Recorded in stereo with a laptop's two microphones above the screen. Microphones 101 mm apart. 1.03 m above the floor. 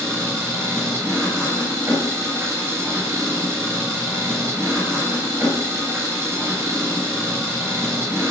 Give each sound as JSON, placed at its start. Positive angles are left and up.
{"t": 0.0, "sound": "an engine running", "side_deg": -25, "distance_m": 3.0}